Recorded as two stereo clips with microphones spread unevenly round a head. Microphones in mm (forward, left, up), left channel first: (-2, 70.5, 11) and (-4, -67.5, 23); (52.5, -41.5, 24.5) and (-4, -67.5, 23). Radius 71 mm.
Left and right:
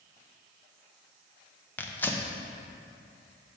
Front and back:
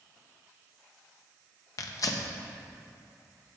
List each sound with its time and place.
1.8 s tearing paper: 20° left, 0.9 m